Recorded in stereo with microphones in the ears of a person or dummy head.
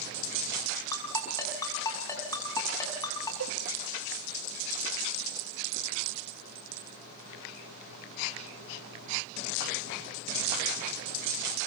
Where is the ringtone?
20° left (ahead or behind), 6.5 m.